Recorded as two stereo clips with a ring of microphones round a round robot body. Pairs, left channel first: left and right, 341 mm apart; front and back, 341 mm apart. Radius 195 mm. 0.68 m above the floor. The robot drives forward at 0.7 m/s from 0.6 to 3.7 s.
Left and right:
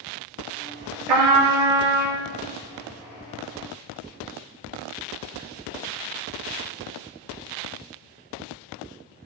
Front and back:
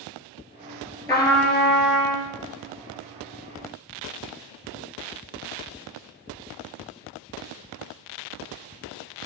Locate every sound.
1.1 s a trumpet: 80° right, 3.5 m; by 2.2 s 95° right, 3.5 m